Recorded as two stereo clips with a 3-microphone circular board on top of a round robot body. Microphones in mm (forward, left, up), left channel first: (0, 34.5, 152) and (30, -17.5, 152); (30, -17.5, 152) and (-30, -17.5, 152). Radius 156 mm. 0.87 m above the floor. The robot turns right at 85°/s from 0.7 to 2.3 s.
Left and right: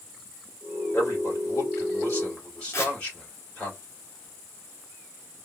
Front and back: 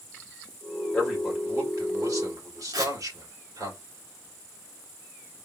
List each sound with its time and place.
0.9 s a man speaking: 70° left, 3 m; by 3.7 s 170° right, 3 m
2.7 s tearing paper: 165° left, 2.5 m